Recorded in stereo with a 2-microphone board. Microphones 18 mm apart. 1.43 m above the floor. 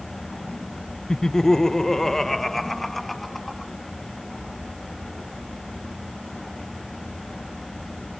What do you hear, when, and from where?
1.1 s laughter: 35° left (ahead or behind); by 3.7 s 5° left (ahead or behind)